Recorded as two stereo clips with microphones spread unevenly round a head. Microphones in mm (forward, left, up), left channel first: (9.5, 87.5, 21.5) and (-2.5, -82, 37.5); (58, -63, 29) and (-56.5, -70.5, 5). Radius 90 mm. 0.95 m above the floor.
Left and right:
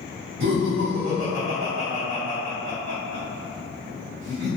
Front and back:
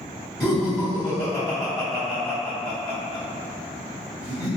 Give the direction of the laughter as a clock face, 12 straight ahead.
2 o'clock.